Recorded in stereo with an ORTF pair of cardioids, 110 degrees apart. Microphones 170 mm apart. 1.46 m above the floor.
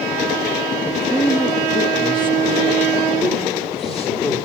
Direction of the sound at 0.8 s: Straight ahead.